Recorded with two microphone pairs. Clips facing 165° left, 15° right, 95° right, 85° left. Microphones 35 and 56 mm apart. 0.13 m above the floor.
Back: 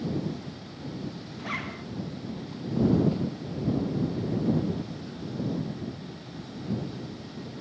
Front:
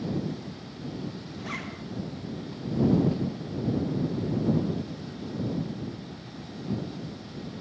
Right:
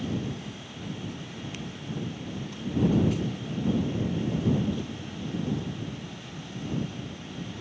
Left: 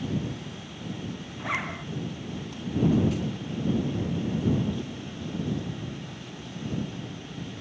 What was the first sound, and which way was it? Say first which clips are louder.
A zipper: back 3 dB, left 7 dB; 90° left.